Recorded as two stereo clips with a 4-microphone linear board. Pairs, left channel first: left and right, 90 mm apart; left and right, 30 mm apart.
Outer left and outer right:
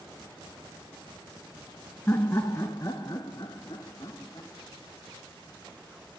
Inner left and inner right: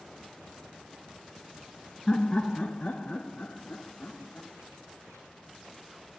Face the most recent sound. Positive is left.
turn(degrees=35)  # may be behind; listen again after turning